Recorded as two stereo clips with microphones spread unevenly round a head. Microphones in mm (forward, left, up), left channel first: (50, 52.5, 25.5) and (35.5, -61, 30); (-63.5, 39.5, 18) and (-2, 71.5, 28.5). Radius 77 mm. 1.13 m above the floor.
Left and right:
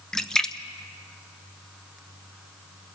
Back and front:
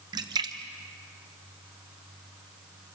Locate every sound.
0.1 s a splash: straight ahead, 0.9 m